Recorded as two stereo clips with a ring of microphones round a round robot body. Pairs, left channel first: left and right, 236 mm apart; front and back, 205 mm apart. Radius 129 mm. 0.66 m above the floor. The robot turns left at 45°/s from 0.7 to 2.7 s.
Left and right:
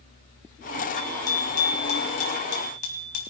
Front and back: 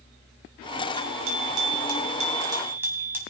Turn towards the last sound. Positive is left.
turn(degrees=100)